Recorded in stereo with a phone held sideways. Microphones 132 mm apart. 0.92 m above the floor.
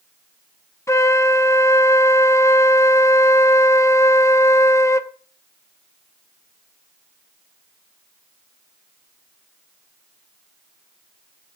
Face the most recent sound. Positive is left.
turn(degrees=20)  # may be behind; listen again after turning